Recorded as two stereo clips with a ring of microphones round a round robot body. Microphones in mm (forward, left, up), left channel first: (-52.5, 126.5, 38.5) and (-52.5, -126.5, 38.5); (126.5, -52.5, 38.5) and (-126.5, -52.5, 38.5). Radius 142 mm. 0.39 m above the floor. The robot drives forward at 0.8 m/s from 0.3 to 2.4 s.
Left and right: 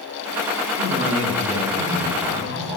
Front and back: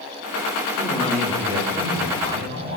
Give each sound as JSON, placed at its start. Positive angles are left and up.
{"t": 0.8, "sound": "a man speaking", "azimuth_deg": -60, "distance_m": 1.2}